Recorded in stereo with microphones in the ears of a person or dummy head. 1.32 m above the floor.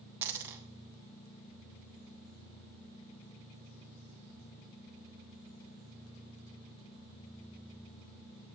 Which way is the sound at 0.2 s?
10° right (ahead or behind).